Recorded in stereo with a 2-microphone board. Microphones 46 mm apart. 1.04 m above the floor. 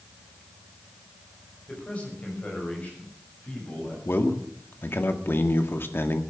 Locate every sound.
1.7 s a man speaking: 25° left (ahead or behind), 6 m; by 4.0 s 35° left (ahead or behind), 8.5 m
4.0 s a man speaking: 55° left (ahead or behind), 1.6 m